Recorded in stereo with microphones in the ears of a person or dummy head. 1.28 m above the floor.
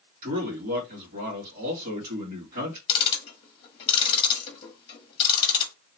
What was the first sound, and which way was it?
A man speaking, 45° right (ahead or behind).